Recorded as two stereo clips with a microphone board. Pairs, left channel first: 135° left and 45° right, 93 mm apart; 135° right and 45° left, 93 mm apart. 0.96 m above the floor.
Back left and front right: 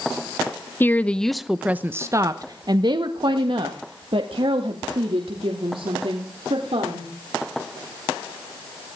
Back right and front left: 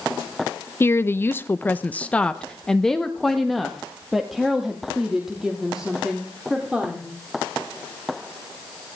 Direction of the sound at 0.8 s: 175° right.